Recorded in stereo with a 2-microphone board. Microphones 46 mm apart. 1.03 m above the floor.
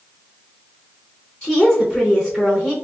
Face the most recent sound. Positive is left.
turn(degrees=20)  # may be behind; listen again after turning